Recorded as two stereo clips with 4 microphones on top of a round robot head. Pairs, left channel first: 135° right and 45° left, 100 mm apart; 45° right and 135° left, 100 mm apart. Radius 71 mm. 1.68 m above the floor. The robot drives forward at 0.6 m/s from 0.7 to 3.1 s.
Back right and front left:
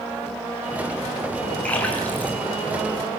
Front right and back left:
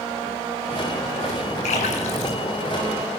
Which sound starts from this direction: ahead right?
A splash, at 1.6 s.